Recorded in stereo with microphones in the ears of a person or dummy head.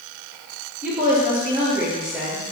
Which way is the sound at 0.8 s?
5° right (ahead or behind).